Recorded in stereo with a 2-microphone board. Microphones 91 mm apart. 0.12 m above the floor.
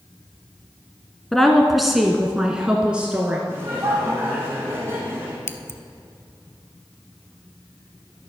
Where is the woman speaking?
5° left (ahead or behind), 1.1 m; by 3.4 s 15° right (ahead or behind), 1.4 m.